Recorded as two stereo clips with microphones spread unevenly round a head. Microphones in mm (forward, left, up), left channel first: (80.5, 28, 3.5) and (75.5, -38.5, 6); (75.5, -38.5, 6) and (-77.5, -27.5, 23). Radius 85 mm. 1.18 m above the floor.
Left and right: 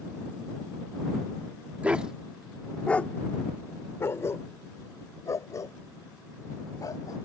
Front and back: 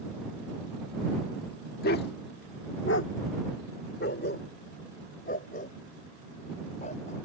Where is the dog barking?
25° right; by 7.2 s 50° left.